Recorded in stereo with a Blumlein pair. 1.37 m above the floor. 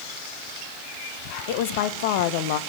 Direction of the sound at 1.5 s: 50° left.